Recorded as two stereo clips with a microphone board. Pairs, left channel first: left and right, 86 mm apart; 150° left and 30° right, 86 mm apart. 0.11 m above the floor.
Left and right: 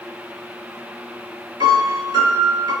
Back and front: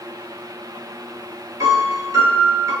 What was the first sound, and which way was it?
A piano, 70° right.